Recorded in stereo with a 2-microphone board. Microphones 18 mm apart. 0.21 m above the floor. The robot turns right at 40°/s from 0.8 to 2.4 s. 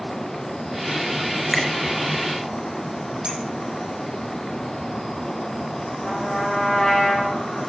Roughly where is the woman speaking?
No woman speaking in this recording.